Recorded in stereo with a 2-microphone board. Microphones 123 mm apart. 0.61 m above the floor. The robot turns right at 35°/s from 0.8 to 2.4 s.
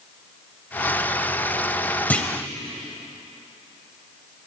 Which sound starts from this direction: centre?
A clunk, at 2.1 s.